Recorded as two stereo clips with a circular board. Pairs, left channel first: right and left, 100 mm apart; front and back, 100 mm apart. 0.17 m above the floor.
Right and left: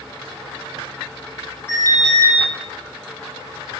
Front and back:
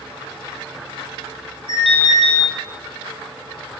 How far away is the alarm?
About 6.5 m.